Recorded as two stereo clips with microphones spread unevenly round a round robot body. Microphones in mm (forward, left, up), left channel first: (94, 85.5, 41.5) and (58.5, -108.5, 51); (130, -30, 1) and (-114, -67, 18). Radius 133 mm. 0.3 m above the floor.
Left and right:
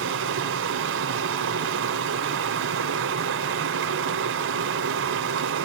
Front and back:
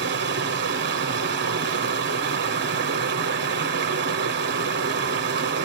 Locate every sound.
0.0 s running water: 125° right, 1.2 m